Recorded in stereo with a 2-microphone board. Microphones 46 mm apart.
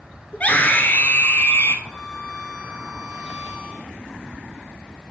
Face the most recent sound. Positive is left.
turn(degrees=25)  # may be behind; listen again after turning